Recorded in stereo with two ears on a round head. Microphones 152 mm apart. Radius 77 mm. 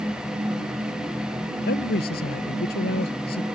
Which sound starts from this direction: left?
A man speaking, at 1.7 s.